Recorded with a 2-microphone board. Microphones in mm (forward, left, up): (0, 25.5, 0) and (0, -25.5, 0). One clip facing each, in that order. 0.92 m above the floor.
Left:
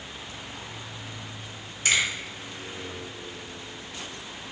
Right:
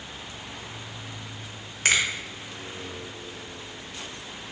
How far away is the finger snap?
About 0.8 m.